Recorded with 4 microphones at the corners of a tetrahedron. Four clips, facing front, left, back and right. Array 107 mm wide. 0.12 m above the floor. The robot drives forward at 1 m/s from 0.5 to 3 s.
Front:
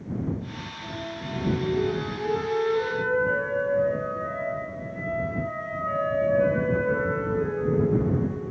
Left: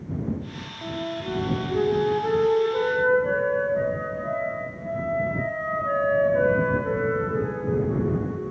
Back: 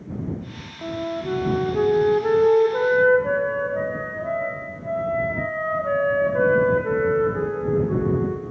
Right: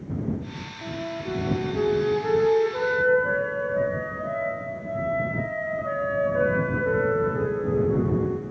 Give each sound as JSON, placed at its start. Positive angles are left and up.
{"t": 0.8, "sound": "a flute", "azimuth_deg": 165, "distance_m": 3.0}